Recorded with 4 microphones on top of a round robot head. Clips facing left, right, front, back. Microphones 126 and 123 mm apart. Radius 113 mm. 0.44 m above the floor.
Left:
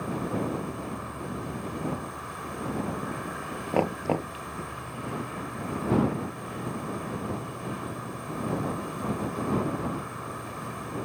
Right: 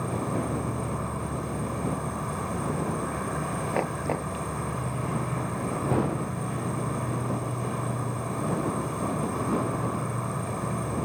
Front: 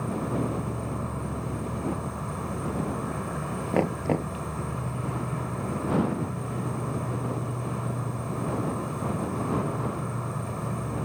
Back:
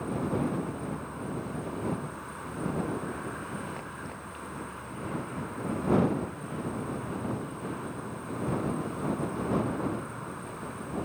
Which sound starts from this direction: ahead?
Knocking, at 3.7 s.